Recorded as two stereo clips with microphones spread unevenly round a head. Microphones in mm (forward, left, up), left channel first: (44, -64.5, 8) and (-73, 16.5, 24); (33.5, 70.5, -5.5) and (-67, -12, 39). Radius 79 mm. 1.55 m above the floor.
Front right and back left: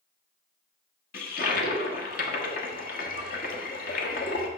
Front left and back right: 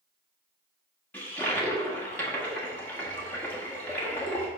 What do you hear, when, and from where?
1.1 s a toilet flushing: 50° right, 1.4 m